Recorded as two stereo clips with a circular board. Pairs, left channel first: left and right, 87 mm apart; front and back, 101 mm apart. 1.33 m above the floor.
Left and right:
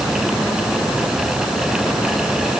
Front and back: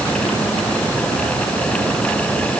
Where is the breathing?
I don't hear breathing.